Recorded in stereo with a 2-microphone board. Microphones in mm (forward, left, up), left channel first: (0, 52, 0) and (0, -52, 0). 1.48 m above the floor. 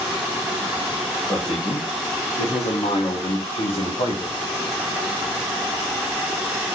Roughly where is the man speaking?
Left.